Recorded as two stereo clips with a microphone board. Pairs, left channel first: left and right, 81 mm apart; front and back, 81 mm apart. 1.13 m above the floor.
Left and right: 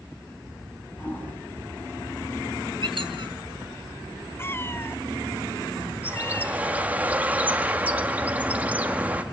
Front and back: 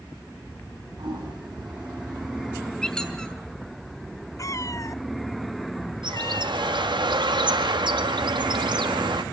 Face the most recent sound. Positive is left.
turn(degrees=-160)